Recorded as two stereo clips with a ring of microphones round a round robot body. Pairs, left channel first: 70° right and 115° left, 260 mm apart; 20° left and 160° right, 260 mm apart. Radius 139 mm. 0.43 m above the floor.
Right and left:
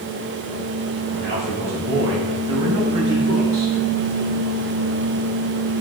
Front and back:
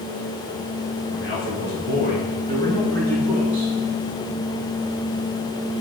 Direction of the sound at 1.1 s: 60° left.